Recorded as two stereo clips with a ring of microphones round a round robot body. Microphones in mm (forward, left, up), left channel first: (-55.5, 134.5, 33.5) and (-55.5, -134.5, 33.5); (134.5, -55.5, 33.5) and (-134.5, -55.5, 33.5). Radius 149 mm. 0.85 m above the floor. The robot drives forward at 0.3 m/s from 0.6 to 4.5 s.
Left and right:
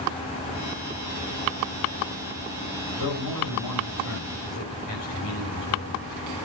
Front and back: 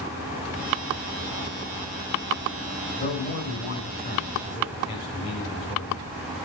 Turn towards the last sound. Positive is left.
turn(degrees=70)